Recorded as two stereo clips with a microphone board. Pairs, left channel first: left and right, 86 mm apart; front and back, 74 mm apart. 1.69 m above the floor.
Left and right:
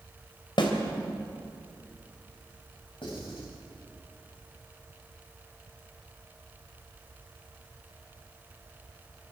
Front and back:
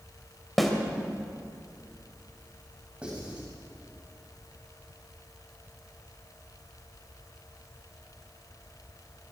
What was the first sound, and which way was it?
A snare drum, 90° left.